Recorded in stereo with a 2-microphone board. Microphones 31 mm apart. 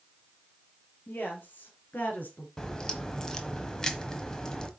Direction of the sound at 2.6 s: 20° left (ahead or behind).